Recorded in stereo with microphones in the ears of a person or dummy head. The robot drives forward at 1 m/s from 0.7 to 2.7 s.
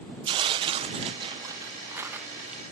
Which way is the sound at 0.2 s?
25° right (ahead or behind).